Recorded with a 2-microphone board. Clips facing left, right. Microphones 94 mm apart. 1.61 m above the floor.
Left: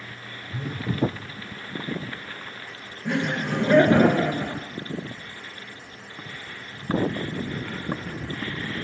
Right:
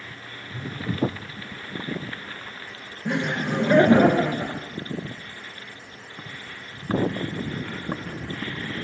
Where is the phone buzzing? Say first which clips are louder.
Left 1 dB; 75° left (ahead or behind), 1.2 m.